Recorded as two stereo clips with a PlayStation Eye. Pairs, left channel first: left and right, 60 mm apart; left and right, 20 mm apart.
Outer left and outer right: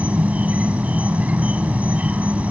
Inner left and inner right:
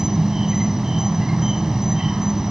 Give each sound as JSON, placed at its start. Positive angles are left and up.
{"t": 0.0, "sound": "an insect", "side_deg": -25, "distance_m": 0.9}